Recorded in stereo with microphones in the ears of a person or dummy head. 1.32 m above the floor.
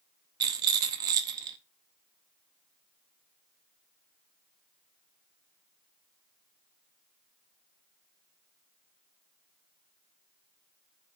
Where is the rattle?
20° right (ahead or behind), 0.7 m.